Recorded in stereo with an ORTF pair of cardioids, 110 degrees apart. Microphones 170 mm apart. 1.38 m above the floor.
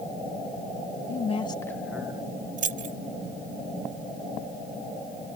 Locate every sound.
1.1 s a woman speaking: 45° left; by 2.2 s 25° right
2.6 s keys jangling: 55° right